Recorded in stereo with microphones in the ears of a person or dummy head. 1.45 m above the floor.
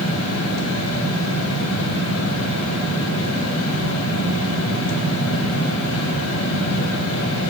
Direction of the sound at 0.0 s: 75° left (ahead or behind).